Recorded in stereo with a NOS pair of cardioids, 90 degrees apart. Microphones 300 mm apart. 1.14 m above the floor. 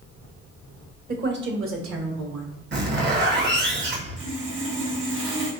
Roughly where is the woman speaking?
Ahead right.